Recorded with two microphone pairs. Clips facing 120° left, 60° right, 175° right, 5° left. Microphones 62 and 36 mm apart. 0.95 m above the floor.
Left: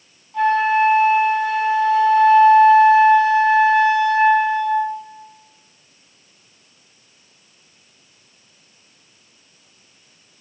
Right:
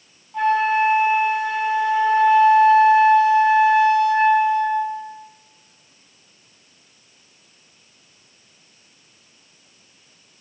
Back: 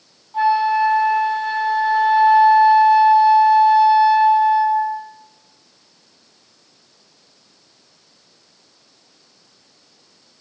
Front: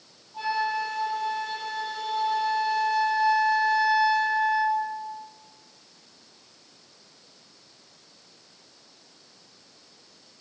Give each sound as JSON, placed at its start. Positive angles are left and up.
{"t": 0.3, "sound": "a flute", "azimuth_deg": -145, "distance_m": 3.0}